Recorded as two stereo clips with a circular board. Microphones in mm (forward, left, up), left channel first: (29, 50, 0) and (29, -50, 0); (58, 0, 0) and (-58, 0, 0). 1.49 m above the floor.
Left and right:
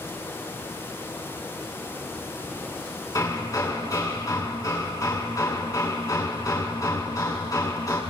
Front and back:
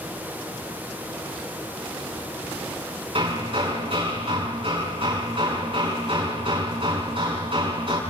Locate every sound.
3.1 s hammering: 145° left, 6.5 m